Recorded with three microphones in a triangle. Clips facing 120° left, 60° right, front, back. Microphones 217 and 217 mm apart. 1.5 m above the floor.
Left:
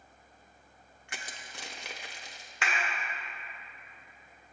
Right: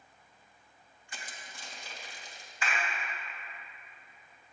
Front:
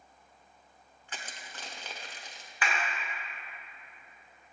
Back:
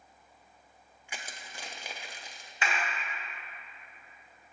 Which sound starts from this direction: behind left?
A clap, at 2.6 s.